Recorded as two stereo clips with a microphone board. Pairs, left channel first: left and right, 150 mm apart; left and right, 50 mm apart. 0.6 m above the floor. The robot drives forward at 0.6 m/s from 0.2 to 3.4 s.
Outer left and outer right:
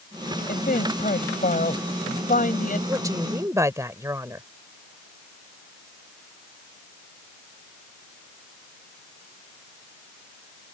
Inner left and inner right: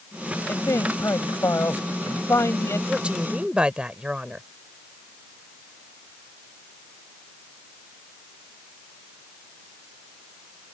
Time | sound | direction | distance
0.5 | a man speaking | 75° left (ahead or behind) | ?
2.9 | a woman speaking | 25° right (ahead or behind) | ?